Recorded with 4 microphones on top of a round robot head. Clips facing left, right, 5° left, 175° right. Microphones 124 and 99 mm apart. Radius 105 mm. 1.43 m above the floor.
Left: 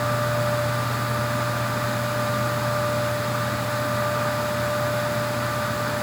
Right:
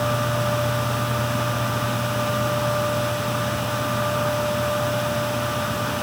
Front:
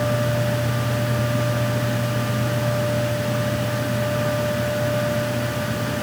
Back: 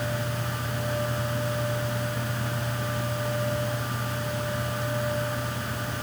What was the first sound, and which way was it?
Only background noise.